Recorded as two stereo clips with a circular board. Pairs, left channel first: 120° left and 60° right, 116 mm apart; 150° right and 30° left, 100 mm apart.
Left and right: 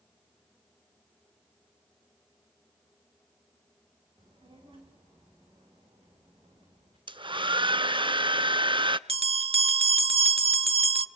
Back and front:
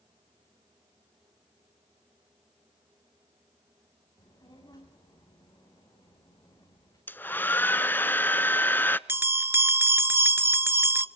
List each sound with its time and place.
4.2 s a child speaking: 100° right, 9.5 m
7.1 s a hair dryer: 85° right, 0.5 m
9.1 s a bell: 35° right, 0.6 m